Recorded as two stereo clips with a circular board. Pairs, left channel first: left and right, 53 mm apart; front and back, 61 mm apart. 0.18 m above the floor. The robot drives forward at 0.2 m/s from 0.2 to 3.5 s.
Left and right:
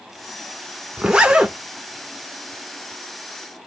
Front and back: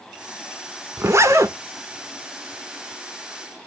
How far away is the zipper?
About 0.6 m.